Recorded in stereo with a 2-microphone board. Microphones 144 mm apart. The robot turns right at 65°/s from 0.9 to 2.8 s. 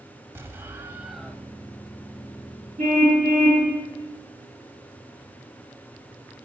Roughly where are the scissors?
I don't hear scissors.